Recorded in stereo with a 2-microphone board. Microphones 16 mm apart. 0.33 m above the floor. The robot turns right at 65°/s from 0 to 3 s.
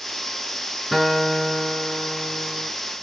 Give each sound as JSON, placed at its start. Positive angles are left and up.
{"t": 0.9, "sound": "a guitar", "azimuth_deg": -175, "distance_m": 3.5}